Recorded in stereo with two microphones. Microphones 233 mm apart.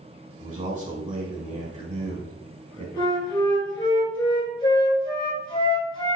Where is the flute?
20° left (ahead or behind), 1.4 m.